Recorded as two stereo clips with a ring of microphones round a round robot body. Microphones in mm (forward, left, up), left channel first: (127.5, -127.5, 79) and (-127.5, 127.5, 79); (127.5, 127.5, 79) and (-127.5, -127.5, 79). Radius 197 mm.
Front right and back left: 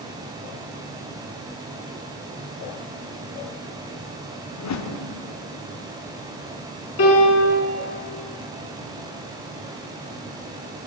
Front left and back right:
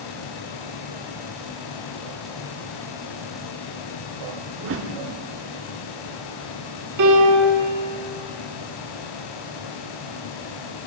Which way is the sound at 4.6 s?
85° right.